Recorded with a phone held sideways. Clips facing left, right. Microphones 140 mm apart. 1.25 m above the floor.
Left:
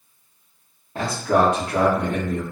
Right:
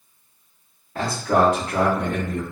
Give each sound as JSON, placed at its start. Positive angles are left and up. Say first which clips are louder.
{"t": 0.9, "sound": "a man speaking", "louder": "even", "side_deg": 25, "distance_m": 1.7}